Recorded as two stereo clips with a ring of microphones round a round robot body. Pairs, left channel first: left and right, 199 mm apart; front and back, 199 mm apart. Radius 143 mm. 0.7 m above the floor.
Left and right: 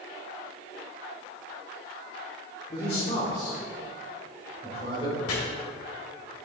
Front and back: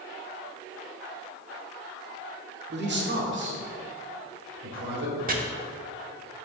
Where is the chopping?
130° left, 1.3 m.